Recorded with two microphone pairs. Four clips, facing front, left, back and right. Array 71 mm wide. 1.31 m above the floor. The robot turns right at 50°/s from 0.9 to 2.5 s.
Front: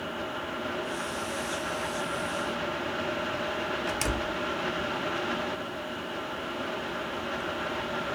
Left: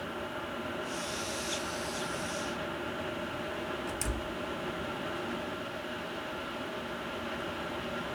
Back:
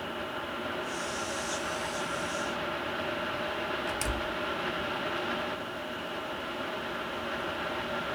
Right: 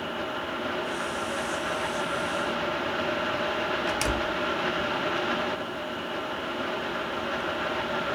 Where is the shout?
No shout in this recording.